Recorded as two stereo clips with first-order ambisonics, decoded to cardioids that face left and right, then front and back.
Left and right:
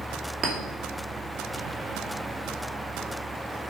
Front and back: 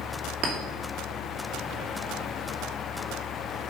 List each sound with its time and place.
0.4 s a clink: 150° right, 2.5 m